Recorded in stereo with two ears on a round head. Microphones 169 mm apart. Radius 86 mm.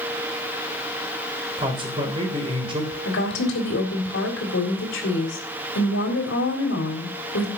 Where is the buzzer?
I don't hear a buzzer.